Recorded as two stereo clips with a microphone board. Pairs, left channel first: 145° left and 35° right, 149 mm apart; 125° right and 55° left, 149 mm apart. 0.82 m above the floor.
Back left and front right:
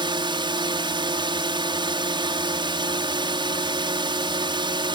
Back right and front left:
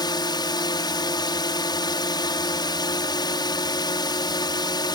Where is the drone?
75° right.